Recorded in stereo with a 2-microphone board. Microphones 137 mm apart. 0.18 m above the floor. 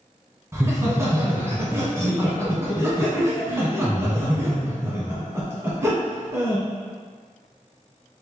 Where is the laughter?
20° right (ahead or behind), 1.4 m.